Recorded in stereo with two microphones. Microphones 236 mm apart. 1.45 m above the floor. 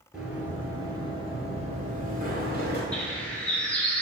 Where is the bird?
5° left (ahead or behind), 1.2 m.